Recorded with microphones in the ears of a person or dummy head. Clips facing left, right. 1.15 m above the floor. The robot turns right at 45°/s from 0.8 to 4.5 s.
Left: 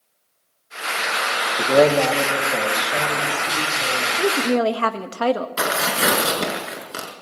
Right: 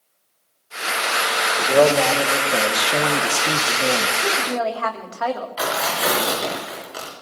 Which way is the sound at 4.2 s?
65° left (ahead or behind).